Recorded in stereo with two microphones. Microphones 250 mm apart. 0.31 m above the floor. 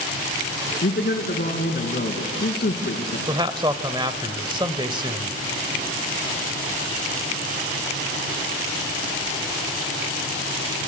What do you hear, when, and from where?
0.8 s a man speaking: 40° left (ahead or behind), 3 m
3.3 s a man speaking: 20° right (ahead or behind), 1.0 m